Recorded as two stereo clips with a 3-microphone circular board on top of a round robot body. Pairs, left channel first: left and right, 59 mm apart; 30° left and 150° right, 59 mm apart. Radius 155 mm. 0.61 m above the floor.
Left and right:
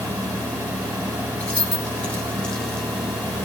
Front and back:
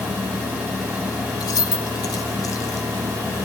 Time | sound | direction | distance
1.4 | keys jangling | 20° left | 3.5 m